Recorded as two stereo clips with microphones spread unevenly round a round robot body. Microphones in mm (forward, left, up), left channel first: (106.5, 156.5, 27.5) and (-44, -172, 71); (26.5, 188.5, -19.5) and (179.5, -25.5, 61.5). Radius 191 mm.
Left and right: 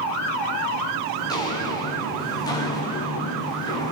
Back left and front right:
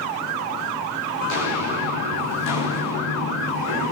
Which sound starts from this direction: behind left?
Footsteps, at 1.2 s.